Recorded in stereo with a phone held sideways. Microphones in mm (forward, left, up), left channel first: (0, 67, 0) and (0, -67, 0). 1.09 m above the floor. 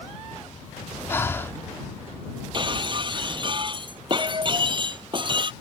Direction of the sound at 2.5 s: 35° right (ahead or behind).